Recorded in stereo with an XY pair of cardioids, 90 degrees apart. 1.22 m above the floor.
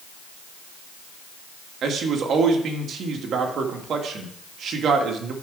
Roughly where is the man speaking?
Right.